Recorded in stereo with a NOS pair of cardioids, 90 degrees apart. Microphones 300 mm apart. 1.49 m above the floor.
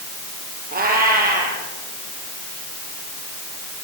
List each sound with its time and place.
0.7 s a cat meowing: 30° right, 7.5 m